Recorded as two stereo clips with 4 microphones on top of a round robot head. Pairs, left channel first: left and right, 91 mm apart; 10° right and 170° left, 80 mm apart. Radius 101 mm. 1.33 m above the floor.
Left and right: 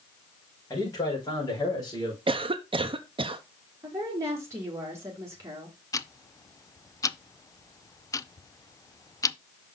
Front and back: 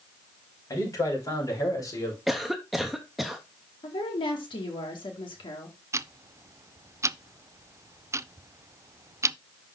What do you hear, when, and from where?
0.7 s a man speaking: 35° left, 5 m; by 2.2 s 40° left, 4 m
2.3 s a cough: 100° right, 0.6 m
3.8 s a woman speaking: 30° right, 2 m
5.9 s ticking: 130° left, 0.5 m